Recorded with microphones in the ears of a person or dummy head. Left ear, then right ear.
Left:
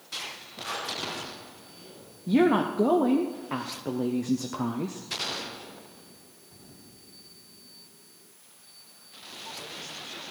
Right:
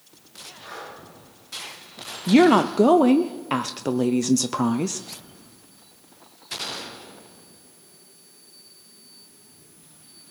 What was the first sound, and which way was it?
Breathing, 30° left (ahead or behind).